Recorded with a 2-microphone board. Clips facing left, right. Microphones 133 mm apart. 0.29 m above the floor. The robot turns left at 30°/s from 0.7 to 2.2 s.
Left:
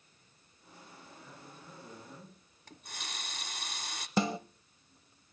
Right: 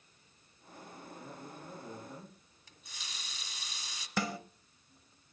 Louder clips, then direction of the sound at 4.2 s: Left 5 dB; 25° left (ahead or behind).